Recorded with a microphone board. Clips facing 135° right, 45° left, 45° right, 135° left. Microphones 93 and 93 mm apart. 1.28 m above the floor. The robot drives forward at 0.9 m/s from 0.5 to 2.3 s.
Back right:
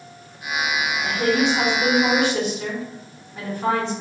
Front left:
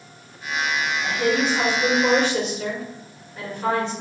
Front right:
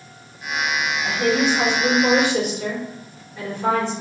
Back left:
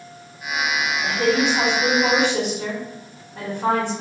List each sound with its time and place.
1.0 s a woman speaking: 150° left, 1.3 m; by 3.9 s 165° left, 2.5 m